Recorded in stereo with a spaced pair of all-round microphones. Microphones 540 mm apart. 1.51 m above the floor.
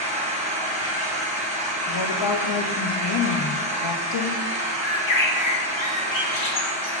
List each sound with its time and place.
0.0 s an engine running: 15° right (ahead or behind), 0.9 m
1.9 s a woman speaking: 55° left (ahead or behind), 0.5 m
4.8 s a bird: 65° left (ahead or behind), 0.7 m